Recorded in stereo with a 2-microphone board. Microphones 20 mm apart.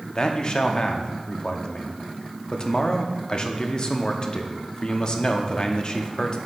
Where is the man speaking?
35° left (ahead or behind), 0.7 m.